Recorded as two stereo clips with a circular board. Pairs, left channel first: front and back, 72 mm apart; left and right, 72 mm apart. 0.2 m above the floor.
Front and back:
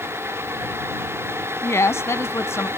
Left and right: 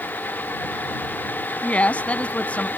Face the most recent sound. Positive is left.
turn(degrees=25)